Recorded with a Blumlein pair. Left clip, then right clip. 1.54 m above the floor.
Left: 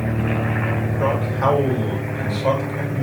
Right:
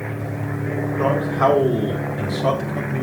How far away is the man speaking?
About 5.5 m.